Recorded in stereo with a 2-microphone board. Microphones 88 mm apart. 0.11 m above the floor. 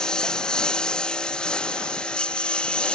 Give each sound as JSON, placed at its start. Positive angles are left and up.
{"t": 0.0, "sound": "a lawn mower", "side_deg": 10}